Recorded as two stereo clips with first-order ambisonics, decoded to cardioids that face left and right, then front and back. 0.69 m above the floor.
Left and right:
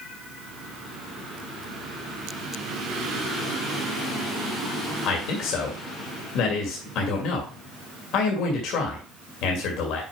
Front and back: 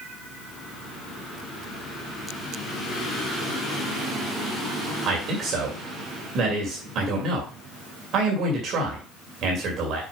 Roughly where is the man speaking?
Behind left.